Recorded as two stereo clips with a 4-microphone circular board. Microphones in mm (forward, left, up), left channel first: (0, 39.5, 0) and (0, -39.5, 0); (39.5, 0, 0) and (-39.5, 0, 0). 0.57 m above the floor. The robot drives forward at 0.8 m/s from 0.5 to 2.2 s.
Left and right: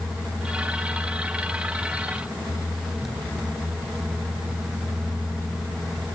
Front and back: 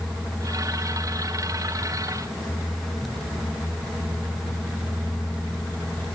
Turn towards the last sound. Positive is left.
No sound to turn to.